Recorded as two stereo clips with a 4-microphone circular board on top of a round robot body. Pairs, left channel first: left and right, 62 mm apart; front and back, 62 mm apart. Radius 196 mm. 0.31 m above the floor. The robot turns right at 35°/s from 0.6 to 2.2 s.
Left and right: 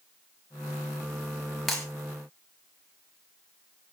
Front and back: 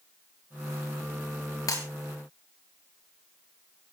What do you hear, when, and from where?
1.7 s breaking glass: straight ahead, 6 m; by 1.9 s 5° left, 6 m